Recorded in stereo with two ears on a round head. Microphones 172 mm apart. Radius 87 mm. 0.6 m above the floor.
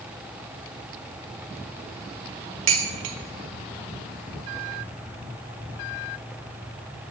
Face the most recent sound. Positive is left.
turn(degrees=-75)  # may be behind; listen again after turning